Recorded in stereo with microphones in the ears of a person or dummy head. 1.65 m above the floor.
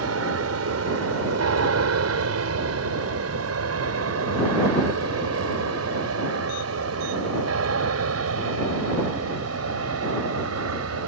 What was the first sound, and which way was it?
An aircraft, 80° right.